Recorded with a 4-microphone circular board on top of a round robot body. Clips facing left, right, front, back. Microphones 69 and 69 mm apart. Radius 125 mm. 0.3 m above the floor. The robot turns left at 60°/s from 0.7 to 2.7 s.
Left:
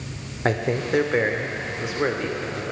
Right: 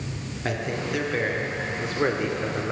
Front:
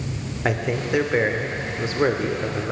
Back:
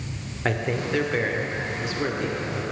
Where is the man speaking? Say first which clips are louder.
Left 6 dB, front 2 dB; 80° left, 1.1 m; by 2.7 s 40° right, 1.1 m.